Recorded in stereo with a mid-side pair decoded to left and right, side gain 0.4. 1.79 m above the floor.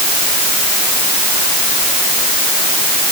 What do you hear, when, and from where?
Only background noise.